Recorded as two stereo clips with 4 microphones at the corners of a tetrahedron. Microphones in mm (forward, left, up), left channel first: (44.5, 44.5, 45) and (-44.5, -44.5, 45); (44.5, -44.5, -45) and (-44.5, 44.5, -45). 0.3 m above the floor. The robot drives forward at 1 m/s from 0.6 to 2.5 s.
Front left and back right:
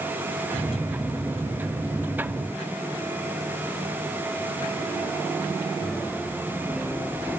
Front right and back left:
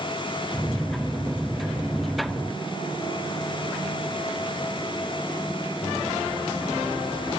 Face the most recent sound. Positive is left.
No sound to turn to.